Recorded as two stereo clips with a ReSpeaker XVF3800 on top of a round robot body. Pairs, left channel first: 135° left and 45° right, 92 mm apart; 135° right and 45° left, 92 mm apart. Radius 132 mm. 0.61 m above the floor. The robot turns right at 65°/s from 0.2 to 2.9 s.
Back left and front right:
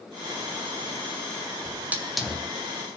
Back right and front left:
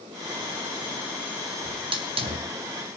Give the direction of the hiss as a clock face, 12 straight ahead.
12 o'clock.